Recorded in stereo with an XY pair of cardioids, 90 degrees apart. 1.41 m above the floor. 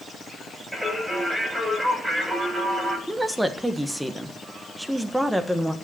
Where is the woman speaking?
10° right, 1.1 m.